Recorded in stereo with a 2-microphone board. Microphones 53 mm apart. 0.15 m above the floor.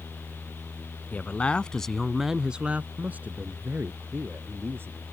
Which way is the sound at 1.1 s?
30° left (ahead or behind).